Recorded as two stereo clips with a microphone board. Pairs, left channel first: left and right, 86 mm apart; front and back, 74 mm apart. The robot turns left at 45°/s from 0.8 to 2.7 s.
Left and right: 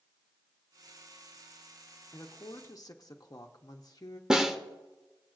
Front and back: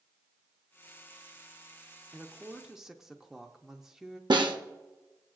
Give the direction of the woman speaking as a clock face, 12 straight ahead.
8 o'clock.